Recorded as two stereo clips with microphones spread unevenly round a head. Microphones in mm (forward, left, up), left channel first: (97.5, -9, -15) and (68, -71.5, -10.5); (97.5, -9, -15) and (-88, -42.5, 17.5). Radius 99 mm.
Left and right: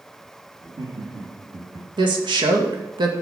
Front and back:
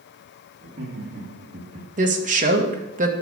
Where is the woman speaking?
120° right, 2.0 m.